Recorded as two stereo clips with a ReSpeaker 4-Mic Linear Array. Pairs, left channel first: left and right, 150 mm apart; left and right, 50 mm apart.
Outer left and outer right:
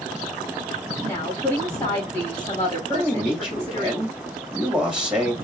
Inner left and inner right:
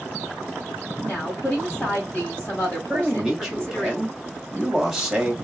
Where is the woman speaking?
20° left (ahead or behind), 2 m.